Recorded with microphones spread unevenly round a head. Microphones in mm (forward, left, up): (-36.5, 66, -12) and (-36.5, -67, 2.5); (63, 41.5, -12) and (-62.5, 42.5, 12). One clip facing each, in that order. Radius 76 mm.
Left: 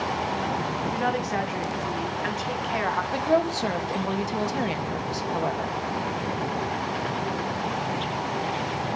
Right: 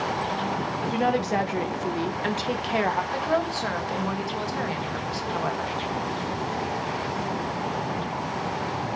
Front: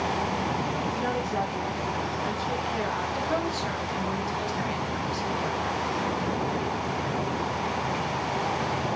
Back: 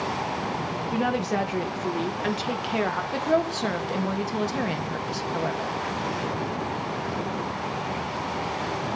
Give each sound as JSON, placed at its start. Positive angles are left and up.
{"t": 0.9, "sound": "a woman speaking", "azimuth_deg": -145, "distance_m": 2.0}
{"t": 3.1, "sound": "a woman speaking", "azimuth_deg": 160, "distance_m": 2.5}